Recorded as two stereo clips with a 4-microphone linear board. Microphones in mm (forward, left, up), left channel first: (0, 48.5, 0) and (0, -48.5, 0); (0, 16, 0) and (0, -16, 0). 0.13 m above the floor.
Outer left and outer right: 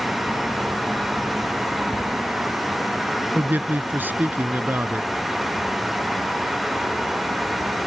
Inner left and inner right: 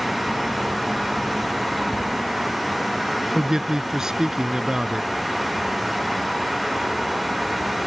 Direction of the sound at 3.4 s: 20° right (ahead or behind).